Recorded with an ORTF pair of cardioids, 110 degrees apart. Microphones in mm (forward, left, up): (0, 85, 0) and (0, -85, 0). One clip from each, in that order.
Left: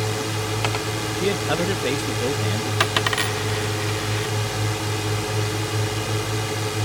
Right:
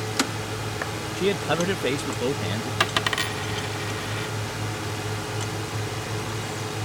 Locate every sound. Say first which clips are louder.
0.0 s a drone: left 2 dB; 40° left
1.2 s a man speaking: even; 5° right
2.8 s a dropped coin: left 2 dB; 10° left